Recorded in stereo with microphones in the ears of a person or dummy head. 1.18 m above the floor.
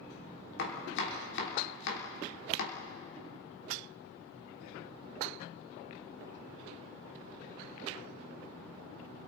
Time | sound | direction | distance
0.6 | chopping | 70° left (ahead or behind) | 2.5 m